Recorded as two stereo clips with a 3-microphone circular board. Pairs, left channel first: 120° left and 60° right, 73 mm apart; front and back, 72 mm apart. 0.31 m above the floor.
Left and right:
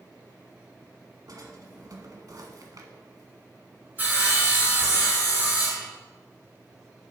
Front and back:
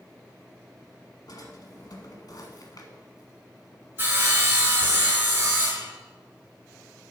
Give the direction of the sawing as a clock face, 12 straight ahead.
4 o'clock.